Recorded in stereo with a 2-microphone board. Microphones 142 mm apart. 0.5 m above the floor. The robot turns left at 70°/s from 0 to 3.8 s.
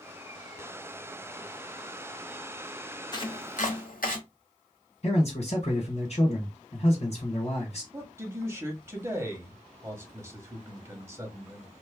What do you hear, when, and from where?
3.1 s chopping: 30° left (ahead or behind), 0.9 m; by 4.2 s 75° left (ahead or behind), 0.9 m
5.0 s a man speaking: 55° left (ahead or behind), 1.7 m
7.9 s a man speaking: 15° right (ahead or behind), 1.1 m